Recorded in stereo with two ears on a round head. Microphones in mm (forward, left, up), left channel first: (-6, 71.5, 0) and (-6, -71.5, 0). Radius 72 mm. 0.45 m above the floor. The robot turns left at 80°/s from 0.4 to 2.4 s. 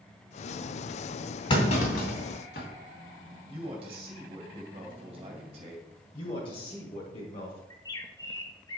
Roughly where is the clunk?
Left.